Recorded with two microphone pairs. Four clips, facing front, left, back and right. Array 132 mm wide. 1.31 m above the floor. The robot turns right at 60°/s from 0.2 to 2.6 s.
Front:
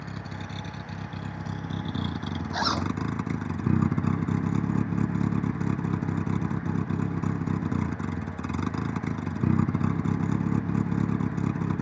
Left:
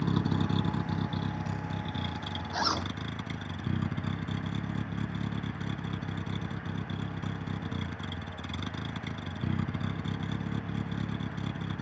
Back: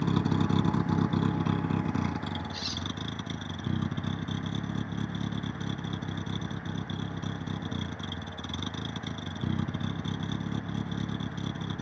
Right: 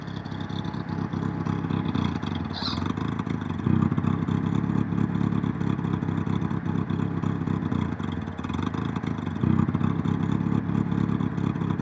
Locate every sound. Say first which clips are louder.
0.0 s a vehicle: left 5 dB, back 11 dB; 155° left; by 11.8 s 60° right
2.5 s a zipper: right 1 dB, front 11 dB; 25° left